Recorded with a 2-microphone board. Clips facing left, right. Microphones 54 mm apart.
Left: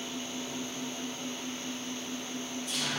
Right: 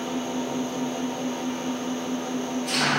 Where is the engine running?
55° right (ahead or behind), 0.8 m.